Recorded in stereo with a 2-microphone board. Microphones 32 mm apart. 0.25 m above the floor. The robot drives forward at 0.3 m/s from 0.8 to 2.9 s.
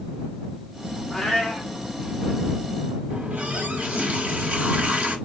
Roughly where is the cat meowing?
Centre.